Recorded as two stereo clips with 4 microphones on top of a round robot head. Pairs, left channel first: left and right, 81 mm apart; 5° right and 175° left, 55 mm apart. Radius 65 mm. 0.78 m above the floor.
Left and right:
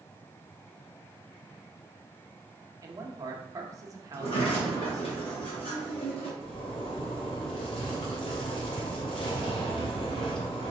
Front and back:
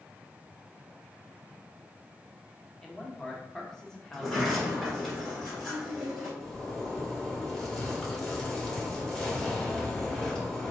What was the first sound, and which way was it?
A man speaking, 80° right.